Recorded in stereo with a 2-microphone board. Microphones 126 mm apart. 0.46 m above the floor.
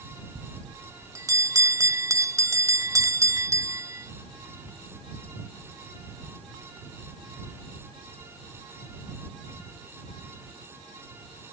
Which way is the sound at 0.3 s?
25° right (ahead or behind).